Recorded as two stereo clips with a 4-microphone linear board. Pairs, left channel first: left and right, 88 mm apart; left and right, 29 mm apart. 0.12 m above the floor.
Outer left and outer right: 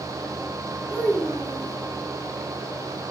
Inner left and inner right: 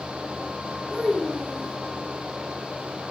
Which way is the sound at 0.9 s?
15° right (ahead or behind).